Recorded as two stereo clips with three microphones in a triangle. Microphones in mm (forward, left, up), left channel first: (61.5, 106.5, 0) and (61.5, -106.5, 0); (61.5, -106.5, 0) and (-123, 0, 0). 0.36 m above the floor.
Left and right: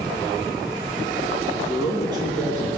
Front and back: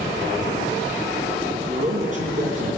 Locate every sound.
1.7 s a man speaking: 160° right, 2.5 m